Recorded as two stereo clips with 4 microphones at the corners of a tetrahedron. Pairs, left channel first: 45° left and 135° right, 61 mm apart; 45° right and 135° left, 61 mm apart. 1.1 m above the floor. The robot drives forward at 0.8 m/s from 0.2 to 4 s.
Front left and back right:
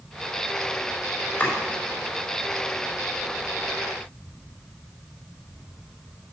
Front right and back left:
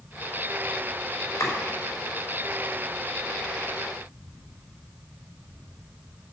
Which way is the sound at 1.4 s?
20° right.